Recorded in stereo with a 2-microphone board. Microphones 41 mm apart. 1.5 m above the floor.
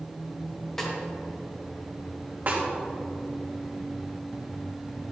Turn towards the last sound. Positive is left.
turn(degrees=-50)  # may be behind; listen again after turning